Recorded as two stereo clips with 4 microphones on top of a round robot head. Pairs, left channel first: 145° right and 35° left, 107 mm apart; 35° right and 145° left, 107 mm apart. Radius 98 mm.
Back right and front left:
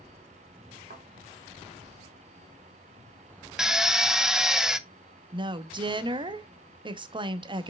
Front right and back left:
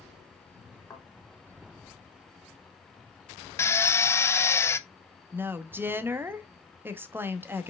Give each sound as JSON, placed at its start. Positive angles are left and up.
{"t": 0.9, "sound": "a thud", "azimuth_deg": 35, "distance_m": 3.0}
{"t": 3.6, "sound": "a drill", "azimuth_deg": -45, "distance_m": 0.8}
{"t": 5.3, "sound": "a woman speaking", "azimuth_deg": 75, "distance_m": 1.0}